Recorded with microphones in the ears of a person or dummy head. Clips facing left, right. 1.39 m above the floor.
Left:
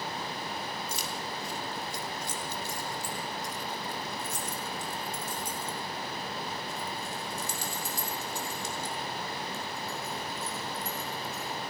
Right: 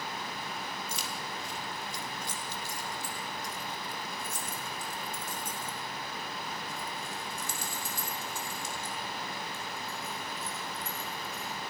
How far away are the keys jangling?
About 2 m.